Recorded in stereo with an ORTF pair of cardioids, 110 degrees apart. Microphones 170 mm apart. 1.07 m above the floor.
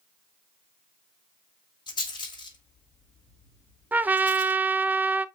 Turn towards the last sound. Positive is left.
turn(degrees=-10)